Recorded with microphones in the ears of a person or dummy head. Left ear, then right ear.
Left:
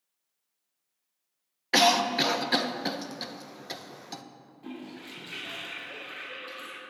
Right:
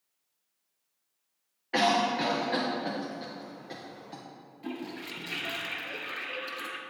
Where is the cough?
75° left (ahead or behind), 0.5 m.